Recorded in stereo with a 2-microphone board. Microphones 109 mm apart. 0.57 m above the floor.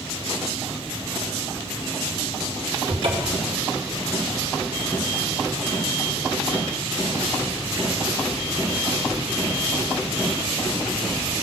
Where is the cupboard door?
55° right (ahead or behind), 2.5 m.